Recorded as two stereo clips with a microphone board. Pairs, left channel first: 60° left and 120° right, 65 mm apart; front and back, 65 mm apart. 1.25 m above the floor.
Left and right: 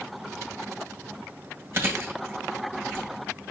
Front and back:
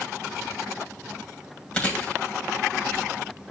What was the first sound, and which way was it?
Chewing, 65° right.